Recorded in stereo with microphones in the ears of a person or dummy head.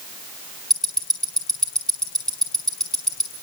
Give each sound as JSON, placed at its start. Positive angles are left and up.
{"t": 0.7, "sound": "ticking", "side_deg": 5, "distance_m": 6.5}